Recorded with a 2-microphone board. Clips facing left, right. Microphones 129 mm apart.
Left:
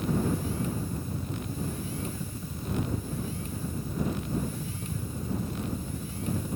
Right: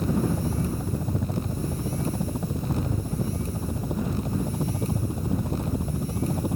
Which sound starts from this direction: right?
A helicopter, at 0.0 s.